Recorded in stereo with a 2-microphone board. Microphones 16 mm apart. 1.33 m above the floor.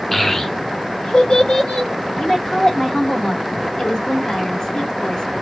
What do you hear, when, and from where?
0.1 s a child speaking: 20° left (ahead or behind), 0.6 m; by 1.9 s 80° left, 1.3 m
2.2 s a woman speaking: 50° left (ahead or behind), 1.1 m